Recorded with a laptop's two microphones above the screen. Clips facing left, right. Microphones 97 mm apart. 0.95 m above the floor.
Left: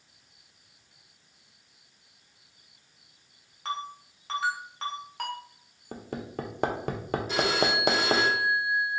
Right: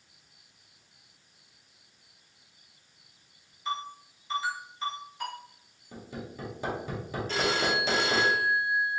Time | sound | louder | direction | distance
3.6 | a ringtone | even | 75° left (ahead or behind) | 1.3 m
5.9 | hammering | left 5 dB | 60° left (ahead or behind) | 0.6 m
7.3 | a phone ringing | left 1 dB | 10° left (ahead or behind) | 1.1 m